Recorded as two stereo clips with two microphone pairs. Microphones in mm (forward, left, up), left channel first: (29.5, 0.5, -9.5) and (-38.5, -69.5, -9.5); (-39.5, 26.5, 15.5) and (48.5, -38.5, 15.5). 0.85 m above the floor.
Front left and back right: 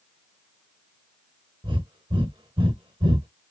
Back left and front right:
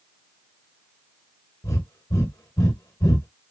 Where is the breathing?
160° right, 1.1 m.